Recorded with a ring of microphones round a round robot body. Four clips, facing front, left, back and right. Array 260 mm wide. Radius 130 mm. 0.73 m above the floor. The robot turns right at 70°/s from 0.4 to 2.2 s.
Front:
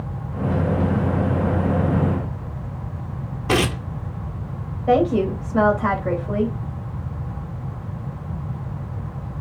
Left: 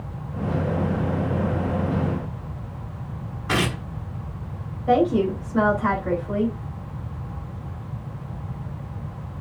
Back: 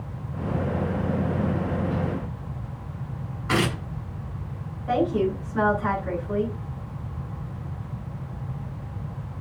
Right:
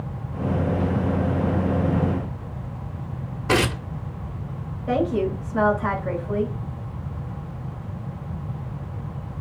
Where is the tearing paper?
40° right, 1.6 m.